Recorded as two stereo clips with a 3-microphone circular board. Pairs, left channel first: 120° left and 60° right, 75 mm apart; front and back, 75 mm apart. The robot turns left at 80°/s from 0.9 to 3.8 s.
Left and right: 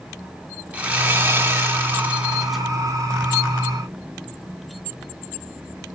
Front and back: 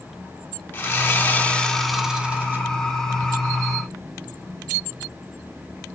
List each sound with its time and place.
0.7 s sawing: 10° right, 1.5 m; by 2.7 s 150° right, 1.5 m